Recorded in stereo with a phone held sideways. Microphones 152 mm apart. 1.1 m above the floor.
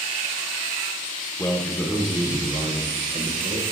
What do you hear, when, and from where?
1.4 s a man speaking: 20° left (ahead or behind), 0.7 m; by 3.6 s 50° right (ahead or behind), 1.2 m